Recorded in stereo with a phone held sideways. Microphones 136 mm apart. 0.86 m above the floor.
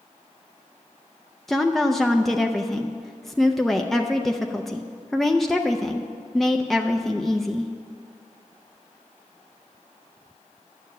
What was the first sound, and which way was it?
A woman speaking, centre (ahead or behind).